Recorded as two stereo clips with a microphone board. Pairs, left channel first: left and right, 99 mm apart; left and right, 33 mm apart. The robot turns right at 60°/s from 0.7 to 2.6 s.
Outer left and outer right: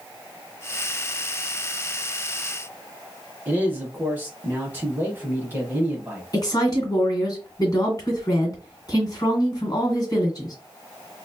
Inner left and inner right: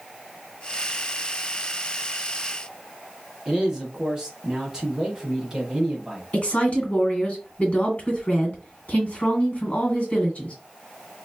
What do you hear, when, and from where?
3.5 s a man speaking: 20° right (ahead or behind), 1.0 m
6.3 s a woman speaking: 40° left (ahead or behind), 1.8 m